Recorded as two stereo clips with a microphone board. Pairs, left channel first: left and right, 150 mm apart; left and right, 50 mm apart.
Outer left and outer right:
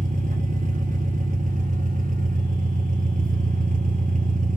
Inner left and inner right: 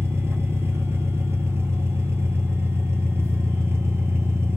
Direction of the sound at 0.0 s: 60° right (ahead or behind).